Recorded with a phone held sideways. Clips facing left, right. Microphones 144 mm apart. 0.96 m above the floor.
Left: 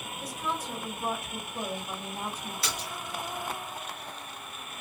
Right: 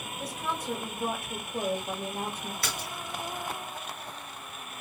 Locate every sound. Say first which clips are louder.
0.2 s a woman speaking: even; 55° right (ahead or behind), 1.4 m
2.6 s a splash: even; 50° right (ahead or behind), 1.8 m